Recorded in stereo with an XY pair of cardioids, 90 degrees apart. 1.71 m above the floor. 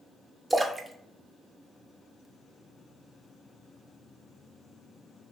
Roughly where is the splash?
Ahead.